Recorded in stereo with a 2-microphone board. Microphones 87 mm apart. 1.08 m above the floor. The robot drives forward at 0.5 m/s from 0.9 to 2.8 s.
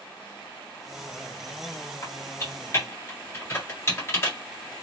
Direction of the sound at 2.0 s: 40° left (ahead or behind).